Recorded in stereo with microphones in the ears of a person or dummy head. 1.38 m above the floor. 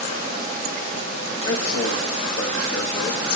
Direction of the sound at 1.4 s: 90° left.